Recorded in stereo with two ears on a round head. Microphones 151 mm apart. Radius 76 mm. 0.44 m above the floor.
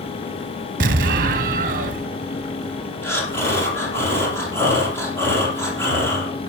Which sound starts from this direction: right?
An explosion, at 0.8 s.